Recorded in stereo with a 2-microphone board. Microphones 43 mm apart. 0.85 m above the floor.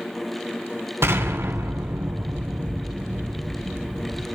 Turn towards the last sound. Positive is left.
turn(degrees=-85)